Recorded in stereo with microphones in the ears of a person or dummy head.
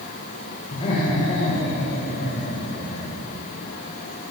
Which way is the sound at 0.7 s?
25° left (ahead or behind).